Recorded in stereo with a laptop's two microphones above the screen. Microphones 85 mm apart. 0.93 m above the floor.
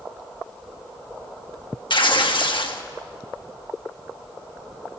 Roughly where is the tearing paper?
Left.